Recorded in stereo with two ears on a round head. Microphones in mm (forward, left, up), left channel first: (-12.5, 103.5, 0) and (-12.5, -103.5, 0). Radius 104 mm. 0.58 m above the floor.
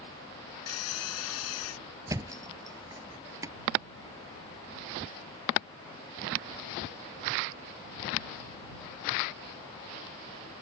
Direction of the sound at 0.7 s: 70° left (ahead or behind).